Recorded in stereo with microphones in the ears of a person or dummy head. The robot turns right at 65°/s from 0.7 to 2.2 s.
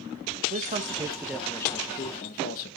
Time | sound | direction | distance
0.5 | a man speaking | 50° right | 1.4 m